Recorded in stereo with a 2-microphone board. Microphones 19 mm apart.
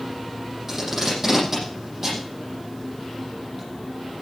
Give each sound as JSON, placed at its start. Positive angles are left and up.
{"t": 0.7, "sound": "tape being pulled", "side_deg": -20, "distance_m": 9.0}